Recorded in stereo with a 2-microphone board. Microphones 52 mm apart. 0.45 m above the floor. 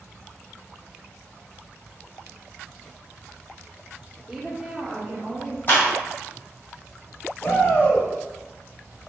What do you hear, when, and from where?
4.3 s a woman speaking: 5° right (ahead or behind), 0.7 m; by 5.6 s 10° right (ahead or behind), 1.3 m
5.7 s a clap: 40° left (ahead or behind), 1.9 m
7.4 s a shout: 45° left (ahead or behind), 1.5 m